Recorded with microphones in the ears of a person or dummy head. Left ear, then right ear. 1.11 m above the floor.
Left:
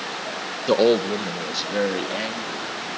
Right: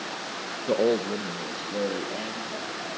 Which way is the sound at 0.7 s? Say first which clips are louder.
Left 6 dB; 35° left (ahead or behind).